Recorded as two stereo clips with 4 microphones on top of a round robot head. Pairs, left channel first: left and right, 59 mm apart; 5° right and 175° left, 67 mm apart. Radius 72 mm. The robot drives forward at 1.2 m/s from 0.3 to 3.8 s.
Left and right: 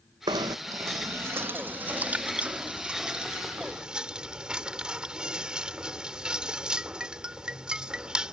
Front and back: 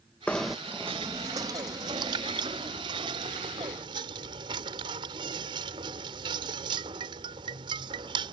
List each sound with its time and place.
0.3 s knocking: 85° right; by 8.3 s 165° right